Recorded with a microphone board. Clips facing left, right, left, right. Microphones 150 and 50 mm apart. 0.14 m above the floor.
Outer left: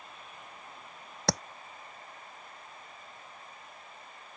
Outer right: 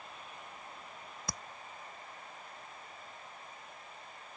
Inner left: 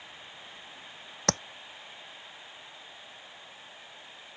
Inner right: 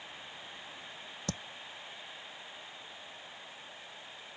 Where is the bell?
No bell in this recording.